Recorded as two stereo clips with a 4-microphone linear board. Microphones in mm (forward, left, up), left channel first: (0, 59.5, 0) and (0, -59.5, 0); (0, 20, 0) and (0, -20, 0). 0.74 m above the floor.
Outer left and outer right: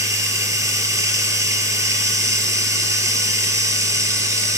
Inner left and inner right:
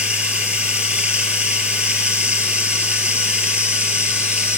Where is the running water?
25° right (ahead or behind), 4 m.